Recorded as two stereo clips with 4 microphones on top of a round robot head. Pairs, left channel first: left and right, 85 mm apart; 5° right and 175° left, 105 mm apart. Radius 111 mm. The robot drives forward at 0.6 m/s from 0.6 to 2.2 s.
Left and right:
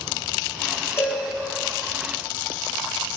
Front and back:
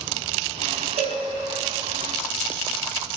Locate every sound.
1.0 s a cowbell: 150° left, 2 m; by 1.2 s 155° left, 2 m